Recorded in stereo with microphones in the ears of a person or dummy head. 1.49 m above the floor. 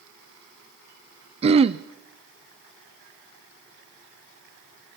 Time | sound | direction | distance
1.4 | throat clearing | 30° right (ahead or behind) | 0.7 m